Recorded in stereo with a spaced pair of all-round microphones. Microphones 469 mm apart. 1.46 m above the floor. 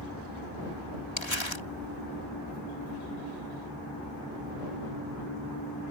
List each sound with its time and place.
1.2 s crumpling: 70° left (ahead or behind)